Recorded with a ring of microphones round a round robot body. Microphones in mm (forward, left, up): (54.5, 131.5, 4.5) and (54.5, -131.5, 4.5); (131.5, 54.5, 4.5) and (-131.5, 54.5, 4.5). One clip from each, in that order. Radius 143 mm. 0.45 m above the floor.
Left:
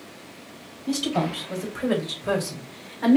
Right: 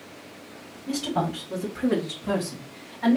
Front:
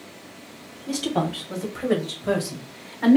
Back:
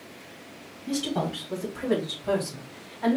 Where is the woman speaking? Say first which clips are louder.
Left 2 dB, front 3 dB; 65° left, 3 m; by 3.2 s 35° left, 1.4 m.